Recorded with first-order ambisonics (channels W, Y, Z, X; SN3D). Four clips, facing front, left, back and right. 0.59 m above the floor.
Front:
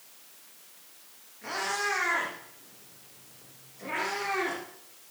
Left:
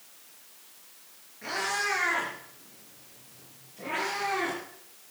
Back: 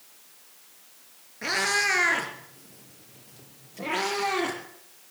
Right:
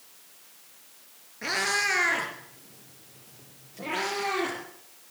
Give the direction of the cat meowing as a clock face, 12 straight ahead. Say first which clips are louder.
Right 3 dB, back 6 dB; 5 o'clock.